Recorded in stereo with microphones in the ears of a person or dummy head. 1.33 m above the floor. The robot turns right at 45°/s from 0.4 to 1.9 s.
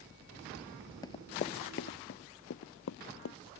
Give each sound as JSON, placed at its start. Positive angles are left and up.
{"t": 1.0, "sound": "running footsteps", "side_deg": 25}